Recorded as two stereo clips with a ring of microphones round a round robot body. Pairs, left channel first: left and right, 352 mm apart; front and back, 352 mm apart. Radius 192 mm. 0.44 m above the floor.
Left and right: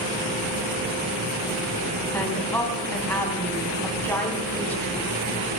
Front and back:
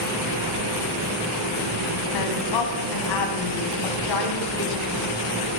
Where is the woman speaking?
5° left, 3.5 m.